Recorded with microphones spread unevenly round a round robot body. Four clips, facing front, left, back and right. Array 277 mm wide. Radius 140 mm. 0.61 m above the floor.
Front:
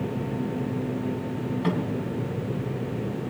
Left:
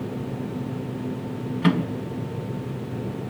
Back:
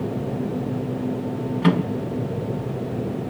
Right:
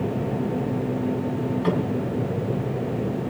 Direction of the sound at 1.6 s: 115° left.